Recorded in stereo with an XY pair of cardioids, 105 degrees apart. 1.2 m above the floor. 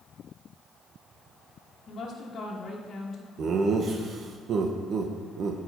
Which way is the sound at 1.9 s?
50° left.